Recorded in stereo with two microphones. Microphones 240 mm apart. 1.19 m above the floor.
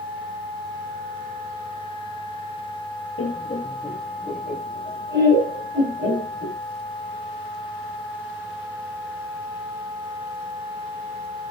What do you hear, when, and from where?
3.2 s laughter: 60° left (ahead or behind), 0.7 m; by 6.6 s 50° right (ahead or behind), 3.5 m